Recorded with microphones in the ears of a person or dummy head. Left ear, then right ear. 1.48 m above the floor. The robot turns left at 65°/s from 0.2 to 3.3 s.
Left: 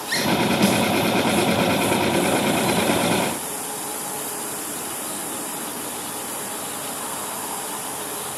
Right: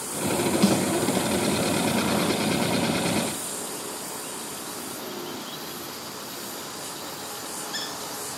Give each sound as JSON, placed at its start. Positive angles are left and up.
{"t": 0.6, "sound": "a snare drum", "side_deg": 10, "distance_m": 3.5}